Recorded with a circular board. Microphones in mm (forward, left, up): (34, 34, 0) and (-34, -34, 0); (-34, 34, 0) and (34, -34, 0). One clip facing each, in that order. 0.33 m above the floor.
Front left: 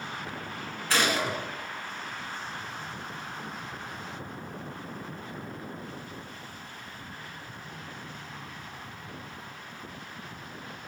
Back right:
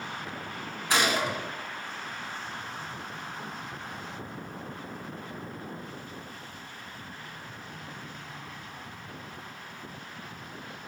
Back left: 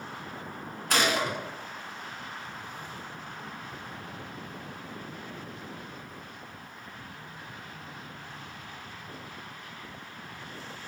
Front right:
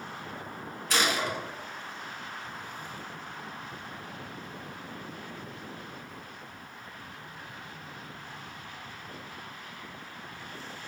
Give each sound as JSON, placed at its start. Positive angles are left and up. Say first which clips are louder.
{"t": 0.9, "sound": "a gunshot", "louder": "back right 1 dB, back left 2 dB", "azimuth_deg": 155, "distance_m": 0.9}